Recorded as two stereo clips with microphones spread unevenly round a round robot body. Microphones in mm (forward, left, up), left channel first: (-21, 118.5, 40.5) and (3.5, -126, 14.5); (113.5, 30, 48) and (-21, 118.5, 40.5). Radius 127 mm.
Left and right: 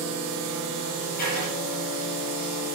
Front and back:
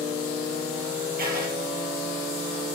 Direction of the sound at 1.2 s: 120° left.